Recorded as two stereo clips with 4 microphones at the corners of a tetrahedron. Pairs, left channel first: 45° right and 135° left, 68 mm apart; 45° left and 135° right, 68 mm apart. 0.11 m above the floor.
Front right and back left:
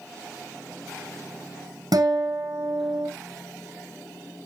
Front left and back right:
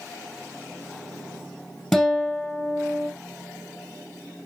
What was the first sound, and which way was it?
A guitar, 125° left.